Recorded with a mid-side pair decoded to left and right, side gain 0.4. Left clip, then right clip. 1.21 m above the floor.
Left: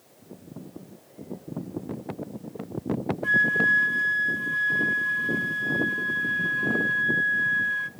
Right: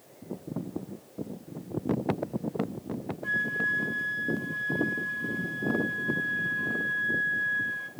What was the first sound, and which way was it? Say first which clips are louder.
A flute: left 7 dB; 50° left.